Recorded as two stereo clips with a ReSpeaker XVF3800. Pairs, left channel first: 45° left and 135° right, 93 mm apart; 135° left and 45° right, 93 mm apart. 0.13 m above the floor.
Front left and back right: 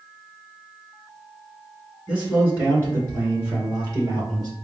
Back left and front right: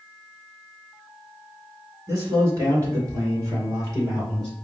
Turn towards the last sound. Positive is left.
turn(degrees=-95)